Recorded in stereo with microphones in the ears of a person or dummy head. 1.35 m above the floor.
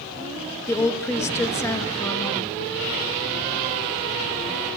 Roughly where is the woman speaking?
Centre.